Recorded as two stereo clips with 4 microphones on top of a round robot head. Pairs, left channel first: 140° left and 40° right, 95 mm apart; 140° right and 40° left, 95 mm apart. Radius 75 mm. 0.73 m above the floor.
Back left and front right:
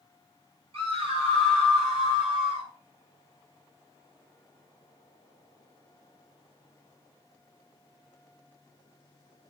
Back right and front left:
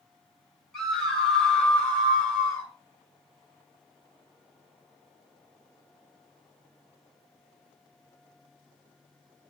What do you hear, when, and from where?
0.7 s a scream: 55° right, 4.5 m; by 2.7 s 65° right, 6 m